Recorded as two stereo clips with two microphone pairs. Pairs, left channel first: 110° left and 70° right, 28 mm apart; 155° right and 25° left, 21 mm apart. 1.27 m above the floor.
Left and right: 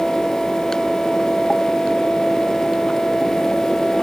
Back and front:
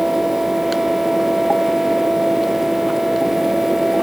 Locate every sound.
Only background noise.